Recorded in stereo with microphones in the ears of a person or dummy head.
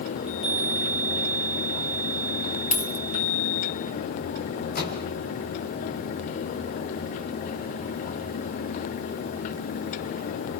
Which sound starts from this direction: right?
A chime, at 0.2 s.